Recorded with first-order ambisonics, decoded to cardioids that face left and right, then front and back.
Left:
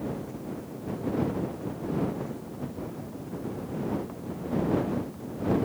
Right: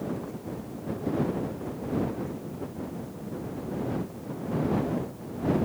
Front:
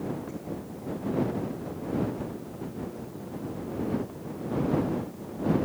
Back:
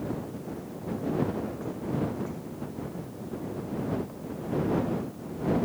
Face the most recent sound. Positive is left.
No sound to turn to.